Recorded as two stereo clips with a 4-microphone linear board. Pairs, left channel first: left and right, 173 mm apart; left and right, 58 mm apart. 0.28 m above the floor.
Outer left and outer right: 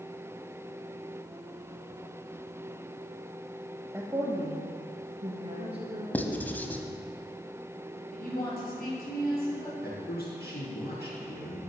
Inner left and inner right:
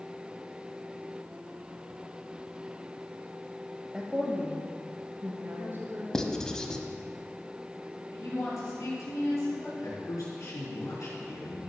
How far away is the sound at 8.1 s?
About 5 m.